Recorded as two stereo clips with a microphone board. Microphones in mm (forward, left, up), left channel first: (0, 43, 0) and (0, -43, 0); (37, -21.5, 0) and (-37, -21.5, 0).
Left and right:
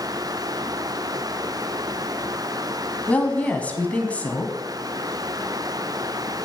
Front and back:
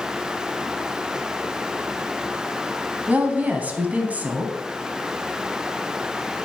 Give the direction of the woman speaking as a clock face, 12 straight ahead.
7 o'clock.